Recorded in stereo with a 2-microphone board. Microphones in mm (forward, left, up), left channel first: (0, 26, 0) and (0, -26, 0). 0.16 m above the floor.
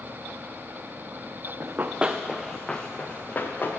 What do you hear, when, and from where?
1.6 s running footsteps: 45° right (ahead or behind), 0.6 m; by 3.7 s 40° left (ahead or behind), 1.2 m